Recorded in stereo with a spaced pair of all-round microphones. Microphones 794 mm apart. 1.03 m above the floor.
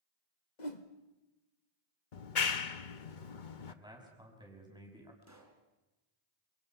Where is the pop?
20° right (ahead or behind), 3.5 m.